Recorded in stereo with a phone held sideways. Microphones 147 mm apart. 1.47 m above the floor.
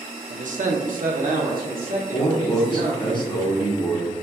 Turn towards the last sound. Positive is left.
turn(degrees=35)  # may be behind; listen again after turning